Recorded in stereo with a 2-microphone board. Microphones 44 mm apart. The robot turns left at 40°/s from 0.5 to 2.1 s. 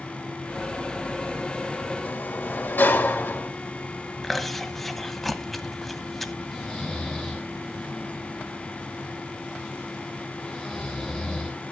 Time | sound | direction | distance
2.0 | a sliding door | 55° left (ahead or behind) | 2.5 m
4.2 | chewing | 5° left (ahead or behind) | 0.8 m
6.5 | snoring | centre (ahead or behind) | 5 m